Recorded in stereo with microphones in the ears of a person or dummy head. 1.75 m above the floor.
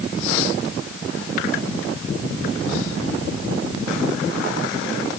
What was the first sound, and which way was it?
Only background noise.